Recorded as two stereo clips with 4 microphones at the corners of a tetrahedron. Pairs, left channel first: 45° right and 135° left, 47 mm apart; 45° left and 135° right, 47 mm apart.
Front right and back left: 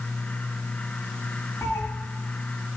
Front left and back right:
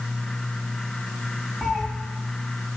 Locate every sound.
1.6 s a cat meowing: 55° right, 2 m